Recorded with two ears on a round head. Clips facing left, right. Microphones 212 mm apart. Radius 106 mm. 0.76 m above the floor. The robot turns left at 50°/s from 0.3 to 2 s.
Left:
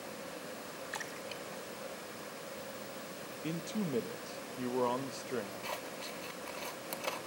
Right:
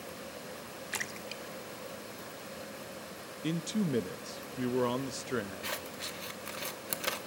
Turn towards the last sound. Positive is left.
turn(degrees=-20)  # may be behind; listen again after turning